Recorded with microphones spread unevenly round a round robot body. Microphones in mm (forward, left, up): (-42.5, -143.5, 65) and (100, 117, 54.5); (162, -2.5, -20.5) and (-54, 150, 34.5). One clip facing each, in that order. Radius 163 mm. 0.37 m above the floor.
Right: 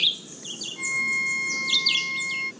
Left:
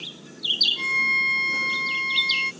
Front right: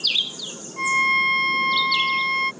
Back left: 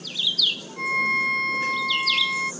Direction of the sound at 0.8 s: Straight ahead.